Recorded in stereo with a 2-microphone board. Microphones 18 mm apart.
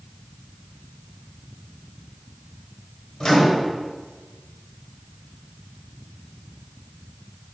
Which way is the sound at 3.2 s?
45° left (ahead or behind).